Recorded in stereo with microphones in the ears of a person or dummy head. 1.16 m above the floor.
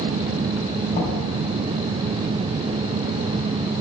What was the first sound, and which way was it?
Knocking, 40° left (ahead or behind).